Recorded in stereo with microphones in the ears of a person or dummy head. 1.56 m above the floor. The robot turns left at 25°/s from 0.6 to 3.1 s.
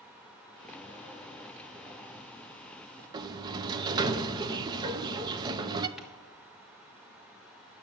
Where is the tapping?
Centre (ahead or behind), 1.5 m.